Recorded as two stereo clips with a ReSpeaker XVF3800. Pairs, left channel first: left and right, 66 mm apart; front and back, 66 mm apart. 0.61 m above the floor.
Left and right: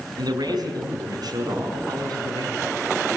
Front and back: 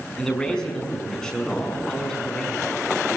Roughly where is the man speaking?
Right.